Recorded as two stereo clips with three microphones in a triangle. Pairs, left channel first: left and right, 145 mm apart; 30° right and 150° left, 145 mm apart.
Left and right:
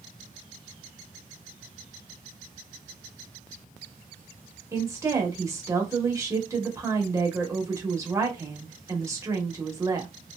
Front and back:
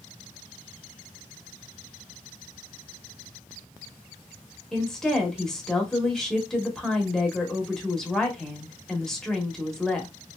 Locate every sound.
4.7 s a woman speaking: 110° right, 0.9 m